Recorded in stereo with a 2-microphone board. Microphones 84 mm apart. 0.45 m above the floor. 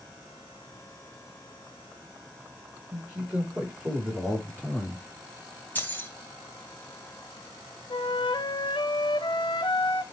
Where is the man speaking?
15° right (ahead or behind), 8.5 m; by 5.0 s 25° right (ahead or behind), 8 m.